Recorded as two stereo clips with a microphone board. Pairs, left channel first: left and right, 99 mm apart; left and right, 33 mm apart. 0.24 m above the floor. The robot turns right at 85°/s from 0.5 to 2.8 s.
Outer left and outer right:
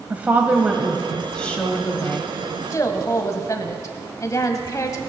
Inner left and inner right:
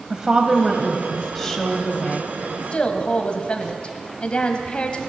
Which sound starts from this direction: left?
A woman speaking, at 2.7 s.